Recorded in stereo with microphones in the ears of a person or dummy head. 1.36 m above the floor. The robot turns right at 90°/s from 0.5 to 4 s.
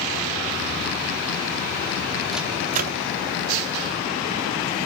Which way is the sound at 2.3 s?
Centre (ahead or behind).